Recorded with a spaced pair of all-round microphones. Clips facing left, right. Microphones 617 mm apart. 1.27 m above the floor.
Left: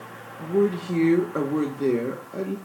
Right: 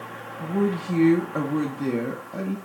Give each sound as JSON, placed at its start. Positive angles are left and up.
{"t": 0.4, "sound": "a woman speaking", "side_deg": -20, "distance_m": 0.9}